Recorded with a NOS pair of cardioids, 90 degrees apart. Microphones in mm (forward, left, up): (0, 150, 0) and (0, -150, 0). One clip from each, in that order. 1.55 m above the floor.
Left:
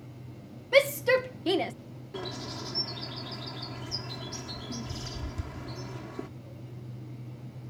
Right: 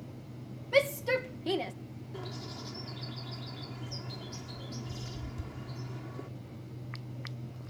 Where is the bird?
40° left.